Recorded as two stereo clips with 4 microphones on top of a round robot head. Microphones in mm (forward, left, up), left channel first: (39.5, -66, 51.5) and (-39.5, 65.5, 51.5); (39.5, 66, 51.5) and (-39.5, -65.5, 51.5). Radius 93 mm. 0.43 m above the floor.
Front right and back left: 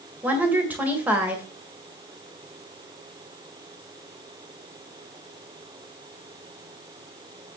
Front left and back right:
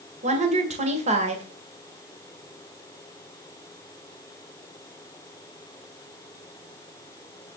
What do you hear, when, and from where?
0.2 s a woman speaking: 160° right, 2.0 m